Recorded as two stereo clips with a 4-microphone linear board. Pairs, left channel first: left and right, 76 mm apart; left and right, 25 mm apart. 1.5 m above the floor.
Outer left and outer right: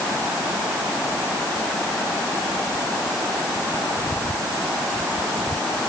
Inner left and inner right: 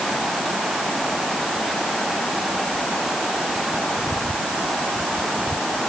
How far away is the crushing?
No crushing in this recording.